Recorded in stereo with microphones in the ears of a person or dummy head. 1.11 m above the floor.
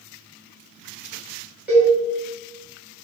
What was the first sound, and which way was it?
A cowbell, 5° right (ahead or behind).